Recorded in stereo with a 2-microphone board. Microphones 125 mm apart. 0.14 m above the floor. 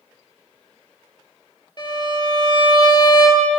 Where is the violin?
35° left (ahead or behind), 1.2 m.